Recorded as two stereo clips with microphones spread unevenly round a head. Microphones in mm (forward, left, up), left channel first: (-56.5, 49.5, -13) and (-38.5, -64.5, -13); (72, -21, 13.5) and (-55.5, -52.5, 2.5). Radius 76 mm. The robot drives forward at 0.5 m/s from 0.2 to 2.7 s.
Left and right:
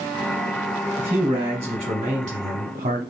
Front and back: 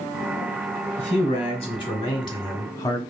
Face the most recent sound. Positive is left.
turn(degrees=-50)